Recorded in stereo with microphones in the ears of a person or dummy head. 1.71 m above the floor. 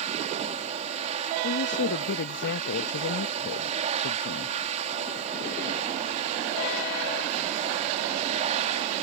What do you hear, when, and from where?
0.0 s a machine running: 40° right (ahead or behind)
1.4 s a woman speaking: 65° left (ahead or behind)